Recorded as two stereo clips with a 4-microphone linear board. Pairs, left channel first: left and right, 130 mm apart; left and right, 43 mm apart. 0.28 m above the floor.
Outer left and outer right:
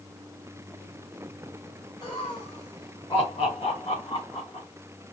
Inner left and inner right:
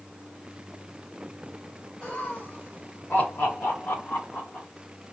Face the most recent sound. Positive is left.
turn(degrees=45)  # may be behind; listen again after turning